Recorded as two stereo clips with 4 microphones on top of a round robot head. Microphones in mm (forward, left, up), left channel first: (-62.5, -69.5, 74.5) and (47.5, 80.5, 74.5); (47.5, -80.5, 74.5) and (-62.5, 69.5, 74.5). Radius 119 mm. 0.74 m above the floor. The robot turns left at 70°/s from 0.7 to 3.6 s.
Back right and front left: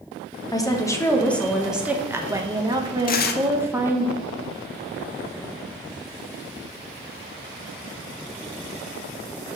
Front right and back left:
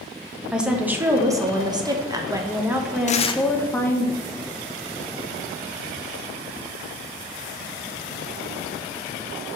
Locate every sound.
0.5 s a woman speaking: 155° right, 1.0 m; by 4.1 s straight ahead, 1.0 m
3.1 s tearing paper: 95° right, 0.6 m; by 3.4 s 120° right, 0.6 m